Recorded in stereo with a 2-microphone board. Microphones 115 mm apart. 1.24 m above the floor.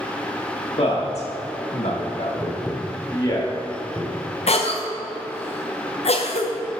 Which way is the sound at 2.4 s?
15° right (ahead or behind).